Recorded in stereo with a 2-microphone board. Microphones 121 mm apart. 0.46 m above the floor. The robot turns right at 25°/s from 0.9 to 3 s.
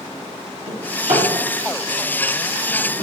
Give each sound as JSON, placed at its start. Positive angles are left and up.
{"t": 0.7, "sound": "a drawer", "side_deg": -65, "distance_m": 1.6}